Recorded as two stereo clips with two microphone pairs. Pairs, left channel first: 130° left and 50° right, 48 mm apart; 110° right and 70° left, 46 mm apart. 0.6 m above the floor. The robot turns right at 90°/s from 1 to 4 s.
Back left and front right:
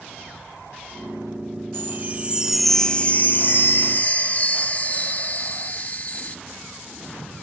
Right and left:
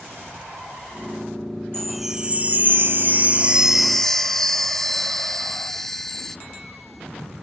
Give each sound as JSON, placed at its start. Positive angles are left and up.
{"t": 1.7, "sound": "a chime", "azimuth_deg": -35, "distance_m": 0.7}